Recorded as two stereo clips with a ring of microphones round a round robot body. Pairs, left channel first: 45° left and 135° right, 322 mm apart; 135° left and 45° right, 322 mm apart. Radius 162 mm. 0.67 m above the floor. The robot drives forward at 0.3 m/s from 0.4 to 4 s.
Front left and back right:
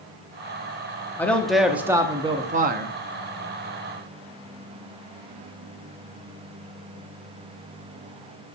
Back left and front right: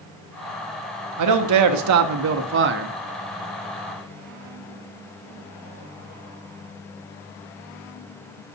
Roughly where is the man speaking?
Ahead right.